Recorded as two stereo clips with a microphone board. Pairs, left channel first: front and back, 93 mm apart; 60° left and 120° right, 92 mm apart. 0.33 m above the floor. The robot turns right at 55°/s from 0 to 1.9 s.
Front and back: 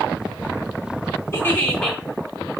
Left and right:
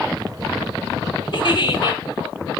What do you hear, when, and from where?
1.3 s a giggle: 55° left, 2.5 m; by 2.0 s 90° left, 2.5 m